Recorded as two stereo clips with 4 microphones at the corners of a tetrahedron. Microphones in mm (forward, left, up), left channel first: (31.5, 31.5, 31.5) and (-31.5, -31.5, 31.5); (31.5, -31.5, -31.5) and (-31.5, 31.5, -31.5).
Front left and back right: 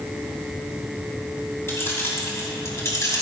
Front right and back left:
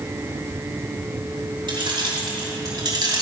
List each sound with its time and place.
1.7 s keys jangling: 105° left, 4 m; by 3.2 s 95° left, 2.5 m